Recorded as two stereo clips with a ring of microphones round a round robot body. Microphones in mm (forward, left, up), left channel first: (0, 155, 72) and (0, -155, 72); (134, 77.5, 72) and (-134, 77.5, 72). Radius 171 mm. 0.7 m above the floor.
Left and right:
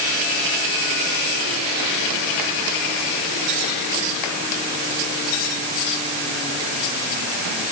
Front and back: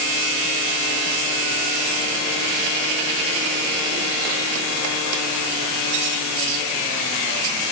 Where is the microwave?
No microwave in this recording.